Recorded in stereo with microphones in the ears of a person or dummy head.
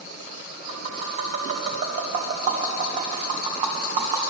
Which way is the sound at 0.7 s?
40° right (ahead or behind).